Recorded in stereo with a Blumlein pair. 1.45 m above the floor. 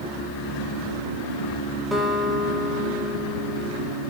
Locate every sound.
1.9 s a guitar: straight ahead, 2.5 m